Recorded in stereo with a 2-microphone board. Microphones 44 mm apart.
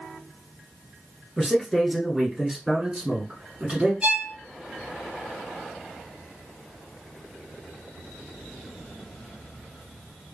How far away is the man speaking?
About 1.7 m.